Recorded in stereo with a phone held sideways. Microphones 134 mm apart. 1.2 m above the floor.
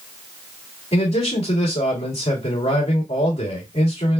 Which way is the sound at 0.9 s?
55° left (ahead or behind).